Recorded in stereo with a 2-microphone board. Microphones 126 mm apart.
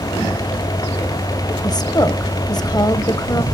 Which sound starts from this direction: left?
A woman speaking, at 1.6 s.